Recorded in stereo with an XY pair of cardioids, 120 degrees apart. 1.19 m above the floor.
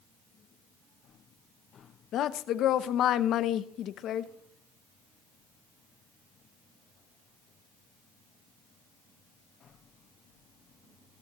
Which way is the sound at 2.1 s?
65° left.